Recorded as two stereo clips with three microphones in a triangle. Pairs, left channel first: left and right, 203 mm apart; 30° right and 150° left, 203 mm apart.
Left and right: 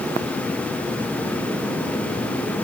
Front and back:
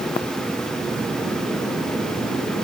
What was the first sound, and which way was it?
Only background noise.